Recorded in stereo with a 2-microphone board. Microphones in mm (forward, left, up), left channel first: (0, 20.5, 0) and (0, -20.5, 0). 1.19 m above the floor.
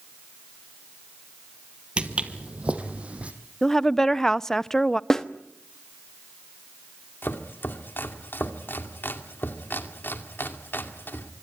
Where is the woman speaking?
10° left (ahead or behind), 0.6 m.